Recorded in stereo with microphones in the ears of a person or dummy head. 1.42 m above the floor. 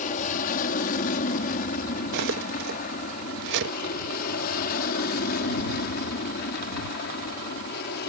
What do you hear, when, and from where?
0.0 s an aircraft: 45° left (ahead or behind); by 8.1 s 55° left (ahead or behind)
2.1 s cutlery clinking: 55° right (ahead or behind)